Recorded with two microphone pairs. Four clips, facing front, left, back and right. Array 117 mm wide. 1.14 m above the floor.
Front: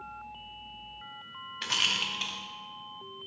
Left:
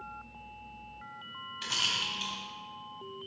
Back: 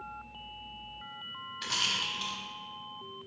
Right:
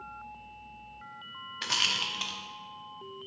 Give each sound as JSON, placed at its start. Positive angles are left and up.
{"t": 1.6, "sound": "a rattle", "azimuth_deg": -70, "distance_m": 0.9}